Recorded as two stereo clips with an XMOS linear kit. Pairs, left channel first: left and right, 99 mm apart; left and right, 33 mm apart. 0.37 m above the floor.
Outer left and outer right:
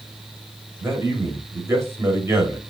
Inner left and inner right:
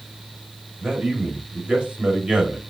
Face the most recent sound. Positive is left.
turn(degrees=-25)  # may be behind; listen again after turning